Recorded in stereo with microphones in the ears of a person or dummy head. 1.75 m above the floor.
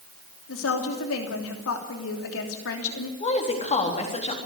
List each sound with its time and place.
0.5 s a woman speaking: 70° left (ahead or behind), 3 m
3.2 s a woman speaking: 35° left (ahead or behind), 3.5 m